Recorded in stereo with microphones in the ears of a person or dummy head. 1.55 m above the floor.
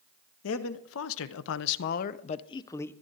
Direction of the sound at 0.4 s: 75° left (ahead or behind).